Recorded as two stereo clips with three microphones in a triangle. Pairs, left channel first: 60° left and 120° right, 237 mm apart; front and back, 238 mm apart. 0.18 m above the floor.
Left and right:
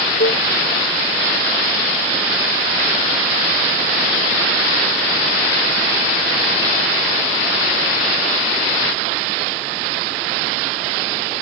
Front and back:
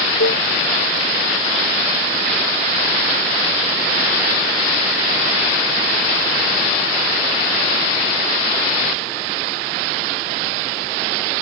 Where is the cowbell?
20° left.